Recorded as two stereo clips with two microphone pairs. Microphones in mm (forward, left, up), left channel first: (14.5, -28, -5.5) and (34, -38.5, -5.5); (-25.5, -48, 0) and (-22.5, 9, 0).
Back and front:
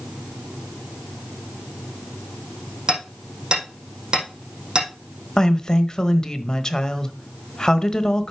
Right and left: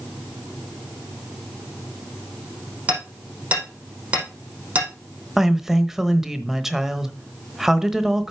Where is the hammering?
20° left, 5 m.